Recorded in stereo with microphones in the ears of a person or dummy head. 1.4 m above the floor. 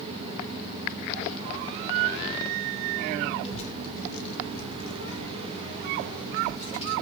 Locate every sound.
3.4 s a child speaking: 30° left (ahead or behind), 0.8 m; by 6.9 s 35° left (ahead or behind), 1.5 m